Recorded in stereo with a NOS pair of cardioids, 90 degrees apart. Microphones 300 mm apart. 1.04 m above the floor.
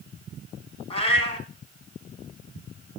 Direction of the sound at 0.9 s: 20° left.